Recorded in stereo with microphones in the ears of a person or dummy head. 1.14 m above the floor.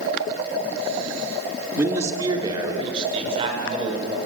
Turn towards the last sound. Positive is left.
turn(degrees=-35)  # may be behind; listen again after turning